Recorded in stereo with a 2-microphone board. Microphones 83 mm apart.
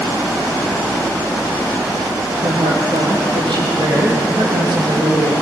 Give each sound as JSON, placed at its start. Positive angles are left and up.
{"t": 2.4, "sound": "a woman speaking", "side_deg": -75, "distance_m": 5.5}